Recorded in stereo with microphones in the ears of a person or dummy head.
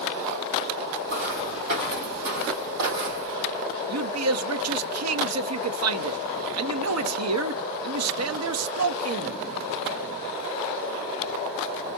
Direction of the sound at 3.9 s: 75° right (ahead or behind).